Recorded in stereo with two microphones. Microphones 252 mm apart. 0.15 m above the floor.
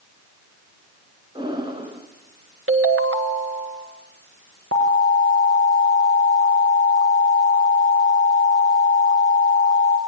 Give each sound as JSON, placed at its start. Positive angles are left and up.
{"t": 1.4, "sound": "breathing", "side_deg": -20, "distance_m": 2.0}
{"t": 2.7, "sound": "a ringtone", "side_deg": -60, "distance_m": 1.3}
{"t": 4.7, "sound": "an alarm", "side_deg": -65, "distance_m": 4.5}